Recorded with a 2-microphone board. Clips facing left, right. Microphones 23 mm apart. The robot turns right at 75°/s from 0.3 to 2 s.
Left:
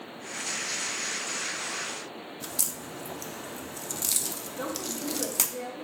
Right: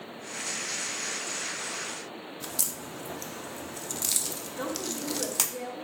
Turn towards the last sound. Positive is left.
turn(degrees=-5)  # may be behind; listen again after turning